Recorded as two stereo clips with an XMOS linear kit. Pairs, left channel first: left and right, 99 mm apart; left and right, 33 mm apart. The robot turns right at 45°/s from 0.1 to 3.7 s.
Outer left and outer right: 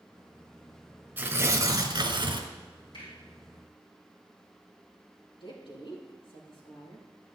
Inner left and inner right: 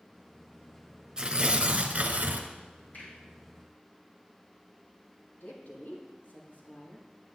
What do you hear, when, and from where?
1.2 s tearing paper: 150° right, 1.2 m; by 2.5 s 90° right, 1.2 m
2.9 s a finger snap: 65° left (ahead or behind), 5 m; by 3.1 s 55° left (ahead or behind), 5 m
5.4 s a woman speaking: 60° left (ahead or behind), 4 m